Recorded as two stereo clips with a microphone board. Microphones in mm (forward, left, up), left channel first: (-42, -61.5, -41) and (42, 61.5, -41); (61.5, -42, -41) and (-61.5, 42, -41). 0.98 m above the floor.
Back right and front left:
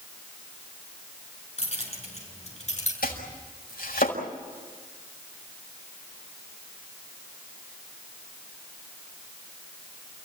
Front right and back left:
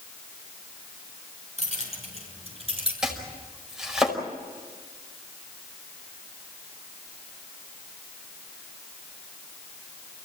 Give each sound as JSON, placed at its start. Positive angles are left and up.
{"t": 1.6, "sound": "keys jangling", "azimuth_deg": -170, "distance_m": 7.5}
{"t": 3.0, "sound": "chopping", "azimuth_deg": -130, "distance_m": 5.0}